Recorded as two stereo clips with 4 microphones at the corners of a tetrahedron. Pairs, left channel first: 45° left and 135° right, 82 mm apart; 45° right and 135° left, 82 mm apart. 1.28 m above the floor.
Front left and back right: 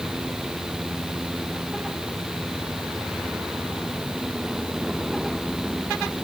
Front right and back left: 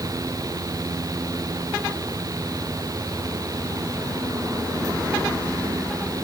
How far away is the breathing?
No breathing in this recording.